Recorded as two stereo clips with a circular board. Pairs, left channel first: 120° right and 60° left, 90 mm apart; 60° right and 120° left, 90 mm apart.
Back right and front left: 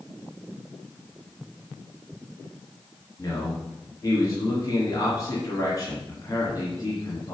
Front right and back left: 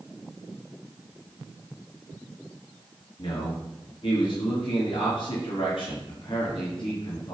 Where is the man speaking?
70° right, 3.5 m.